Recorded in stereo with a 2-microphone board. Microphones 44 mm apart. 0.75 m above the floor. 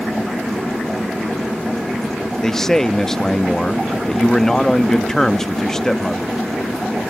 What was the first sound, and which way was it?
A man speaking, 10° left (ahead or behind).